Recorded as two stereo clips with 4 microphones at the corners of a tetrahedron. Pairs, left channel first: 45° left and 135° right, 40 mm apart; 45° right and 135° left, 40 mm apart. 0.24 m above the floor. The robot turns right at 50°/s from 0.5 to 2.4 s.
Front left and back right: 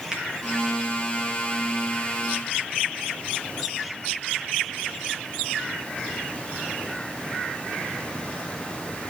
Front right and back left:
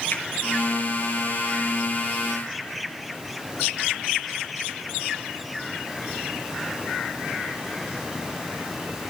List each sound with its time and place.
0.1 s a finger snap: 70° right, 3.5 m